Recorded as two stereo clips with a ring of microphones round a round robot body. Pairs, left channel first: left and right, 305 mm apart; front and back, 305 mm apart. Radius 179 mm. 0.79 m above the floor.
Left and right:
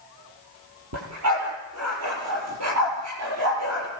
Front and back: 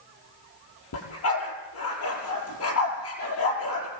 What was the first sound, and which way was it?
A dog barking, 45° right.